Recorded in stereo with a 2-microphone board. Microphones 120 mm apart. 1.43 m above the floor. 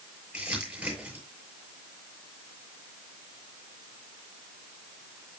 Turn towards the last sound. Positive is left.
turn(degrees=-10)  # may be behind; listen again after turning